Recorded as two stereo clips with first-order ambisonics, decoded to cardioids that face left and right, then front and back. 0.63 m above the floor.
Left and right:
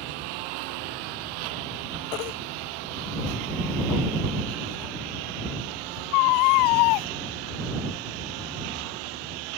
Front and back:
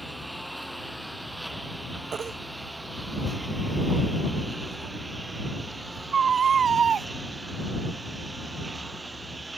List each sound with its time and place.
0.0 s a lawn mower: 90° right; by 9.6 s 100° right
2.1 s a baby crying: 115° left